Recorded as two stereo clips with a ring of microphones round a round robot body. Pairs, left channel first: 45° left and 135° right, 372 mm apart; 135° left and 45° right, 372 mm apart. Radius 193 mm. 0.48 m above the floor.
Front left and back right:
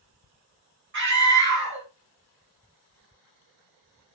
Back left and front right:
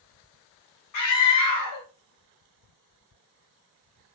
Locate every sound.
0.9 s a scream: 170° left, 1.8 m